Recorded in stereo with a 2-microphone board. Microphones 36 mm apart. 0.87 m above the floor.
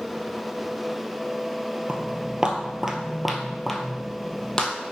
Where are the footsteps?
35° right (ahead or behind), 1.0 m; by 4.7 s 25° left (ahead or behind), 1.3 m.